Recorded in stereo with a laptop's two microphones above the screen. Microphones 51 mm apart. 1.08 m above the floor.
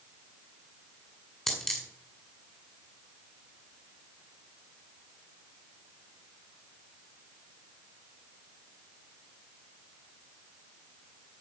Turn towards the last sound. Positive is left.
turn(degrees=10)  # may be behind; listen again after turning